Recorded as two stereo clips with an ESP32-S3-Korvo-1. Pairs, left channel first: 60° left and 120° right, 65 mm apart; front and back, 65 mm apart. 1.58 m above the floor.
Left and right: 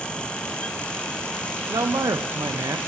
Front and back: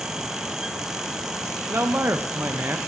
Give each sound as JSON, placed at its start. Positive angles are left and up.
{"t": 1.7, "sound": "a man speaking", "azimuth_deg": -130, "distance_m": 0.8}